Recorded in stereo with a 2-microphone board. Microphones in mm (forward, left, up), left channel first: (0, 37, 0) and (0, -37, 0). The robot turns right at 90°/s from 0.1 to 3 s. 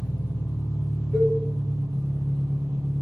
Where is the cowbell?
15° left (ahead or behind), 1.8 m; by 1.4 s 10° right (ahead or behind), 1.8 m.